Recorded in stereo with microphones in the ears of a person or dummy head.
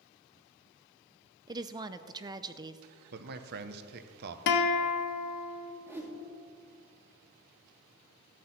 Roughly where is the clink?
I don't hear a clink.